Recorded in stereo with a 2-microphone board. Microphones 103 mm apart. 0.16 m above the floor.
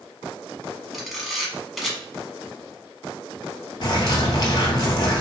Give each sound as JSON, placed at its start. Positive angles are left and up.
{"t": 0.9, "sound": "a camera shutter", "side_deg": 0, "distance_m": 0.8}
{"t": 3.8, "sound": "a bird", "side_deg": 45, "distance_m": 0.8}